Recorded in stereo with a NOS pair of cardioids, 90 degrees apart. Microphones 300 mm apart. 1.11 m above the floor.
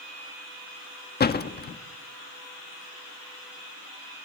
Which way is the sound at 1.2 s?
30° left.